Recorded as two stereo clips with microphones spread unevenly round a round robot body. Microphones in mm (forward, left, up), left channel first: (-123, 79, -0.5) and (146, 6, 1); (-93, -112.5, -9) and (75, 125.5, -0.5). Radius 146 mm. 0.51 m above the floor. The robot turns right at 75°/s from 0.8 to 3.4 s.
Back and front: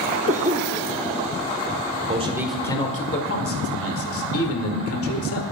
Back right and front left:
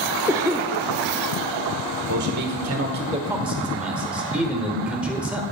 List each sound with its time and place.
0.3 s a cough: 15° right, 0.7 m
2.0 s a man speaking: 35° left, 1.8 m; by 5.4 s 140° left, 1.8 m